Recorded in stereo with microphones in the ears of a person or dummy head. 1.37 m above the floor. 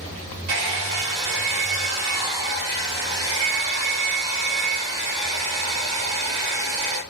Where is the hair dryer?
55° right (ahead or behind), 1.6 m.